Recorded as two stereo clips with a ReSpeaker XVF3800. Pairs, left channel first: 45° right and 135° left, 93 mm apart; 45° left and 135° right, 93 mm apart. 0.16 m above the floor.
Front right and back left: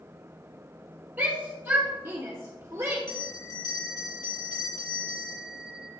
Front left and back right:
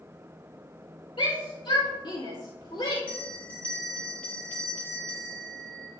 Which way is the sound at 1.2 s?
65° left.